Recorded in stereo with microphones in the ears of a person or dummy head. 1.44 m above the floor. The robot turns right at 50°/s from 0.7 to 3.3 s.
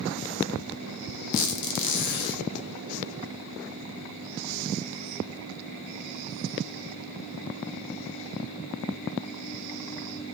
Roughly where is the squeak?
Ahead left.